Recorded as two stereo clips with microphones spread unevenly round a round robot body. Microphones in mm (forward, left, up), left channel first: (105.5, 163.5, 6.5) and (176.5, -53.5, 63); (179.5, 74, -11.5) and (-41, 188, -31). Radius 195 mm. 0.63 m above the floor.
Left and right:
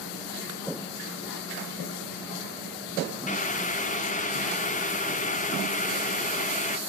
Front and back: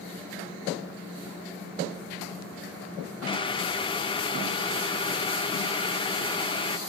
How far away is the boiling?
About 0.7 m.